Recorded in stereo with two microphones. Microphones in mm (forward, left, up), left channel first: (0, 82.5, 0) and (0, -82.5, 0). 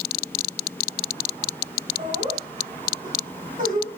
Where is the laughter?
45° right (ahead or behind), 2 m; by 4.0 s 60° right (ahead or behind), 2.5 m.